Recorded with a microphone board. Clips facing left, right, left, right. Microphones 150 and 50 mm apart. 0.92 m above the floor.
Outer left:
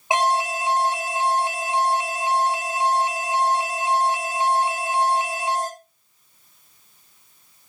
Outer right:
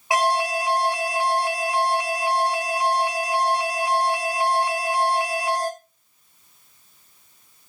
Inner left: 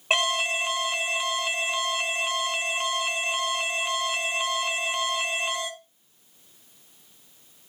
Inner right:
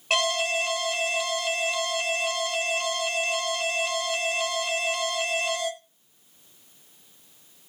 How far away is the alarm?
About 2.5 m.